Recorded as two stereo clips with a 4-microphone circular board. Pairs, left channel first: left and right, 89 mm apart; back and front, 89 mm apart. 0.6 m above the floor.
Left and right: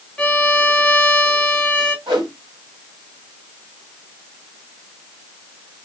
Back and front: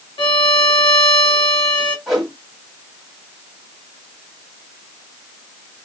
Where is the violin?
175° left, 0.9 m.